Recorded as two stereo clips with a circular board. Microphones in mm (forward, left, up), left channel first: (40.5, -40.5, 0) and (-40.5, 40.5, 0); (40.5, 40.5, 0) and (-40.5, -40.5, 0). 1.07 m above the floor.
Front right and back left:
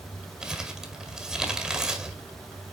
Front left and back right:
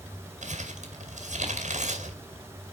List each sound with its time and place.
0.4 s crumpling: 140° right, 2.5 m